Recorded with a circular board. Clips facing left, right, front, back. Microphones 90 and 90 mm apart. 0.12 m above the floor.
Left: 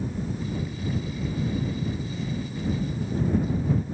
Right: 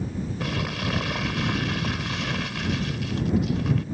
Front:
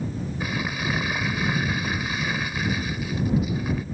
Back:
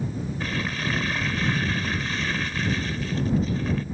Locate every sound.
0.4 s crumpling: 80° right